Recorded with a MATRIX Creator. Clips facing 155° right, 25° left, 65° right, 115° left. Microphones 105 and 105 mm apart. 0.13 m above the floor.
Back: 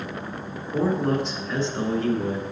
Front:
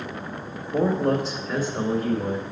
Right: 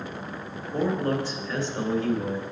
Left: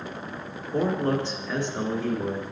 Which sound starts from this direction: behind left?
A man speaking, at 0.7 s.